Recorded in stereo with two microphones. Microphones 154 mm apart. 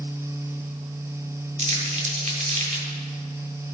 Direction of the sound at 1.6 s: 45° right (ahead or behind).